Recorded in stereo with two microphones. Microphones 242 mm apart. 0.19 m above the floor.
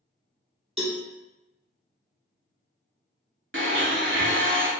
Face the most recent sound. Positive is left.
turn(degrees=-50)  # may be behind; listen again after turning